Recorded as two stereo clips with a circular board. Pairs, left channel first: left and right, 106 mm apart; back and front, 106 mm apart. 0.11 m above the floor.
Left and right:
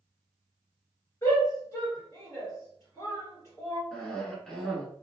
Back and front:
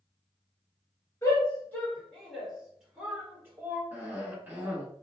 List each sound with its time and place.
1.2 s a shout: 130° left, 1.9 m; by 3.8 s 50° left, 2.0 m
3.9 s a cough: 15° left, 1.2 m